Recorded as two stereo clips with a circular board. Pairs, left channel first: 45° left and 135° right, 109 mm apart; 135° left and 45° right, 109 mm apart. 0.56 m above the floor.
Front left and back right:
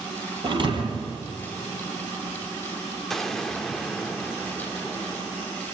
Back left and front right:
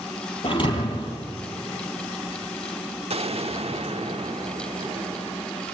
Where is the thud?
Straight behind, 4 m.